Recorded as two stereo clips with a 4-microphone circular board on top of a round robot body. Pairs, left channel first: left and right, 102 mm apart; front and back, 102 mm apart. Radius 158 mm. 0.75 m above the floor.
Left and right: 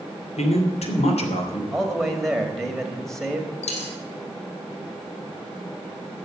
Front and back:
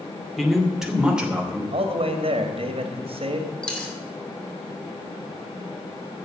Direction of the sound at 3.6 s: 80° left.